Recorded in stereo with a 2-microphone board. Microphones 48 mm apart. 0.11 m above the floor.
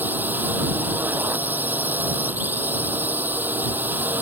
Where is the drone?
40° right (ahead or behind).